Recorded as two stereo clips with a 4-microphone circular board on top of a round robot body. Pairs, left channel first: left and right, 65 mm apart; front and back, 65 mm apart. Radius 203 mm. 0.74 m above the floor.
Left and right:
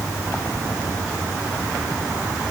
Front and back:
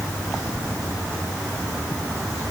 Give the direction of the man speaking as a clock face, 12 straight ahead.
I don't hear a man speaking.